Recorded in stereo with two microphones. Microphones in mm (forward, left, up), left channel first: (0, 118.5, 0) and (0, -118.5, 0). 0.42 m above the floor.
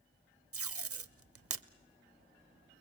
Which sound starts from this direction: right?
Tape being pulled, at 0.5 s.